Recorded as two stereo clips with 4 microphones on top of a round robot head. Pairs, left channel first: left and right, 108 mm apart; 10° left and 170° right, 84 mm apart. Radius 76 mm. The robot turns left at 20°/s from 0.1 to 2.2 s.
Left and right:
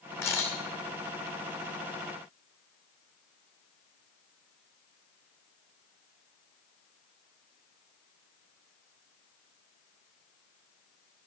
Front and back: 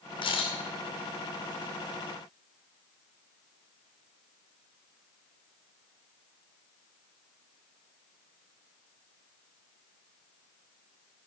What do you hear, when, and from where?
0.2 s a camera shutter: 25° left, 2.5 m; by 0.6 s 20° left, 2.5 m